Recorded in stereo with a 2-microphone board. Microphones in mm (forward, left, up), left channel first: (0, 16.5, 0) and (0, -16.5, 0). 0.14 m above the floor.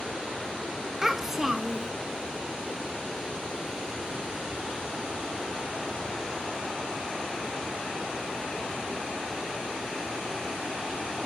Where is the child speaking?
10° right (ahead or behind), 0.6 m.